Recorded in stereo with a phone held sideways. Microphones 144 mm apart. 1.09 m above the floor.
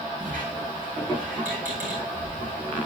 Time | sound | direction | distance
0.2 | a squeak | 75° right (ahead or behind) | 7 m